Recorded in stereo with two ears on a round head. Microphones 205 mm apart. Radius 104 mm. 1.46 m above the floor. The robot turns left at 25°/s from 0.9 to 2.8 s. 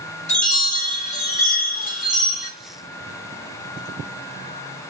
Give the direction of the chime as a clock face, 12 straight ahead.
8 o'clock.